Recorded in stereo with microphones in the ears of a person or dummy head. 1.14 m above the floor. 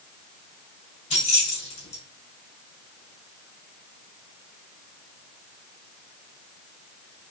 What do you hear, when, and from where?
1.1 s keys jangling: 35° left (ahead or behind), 3 m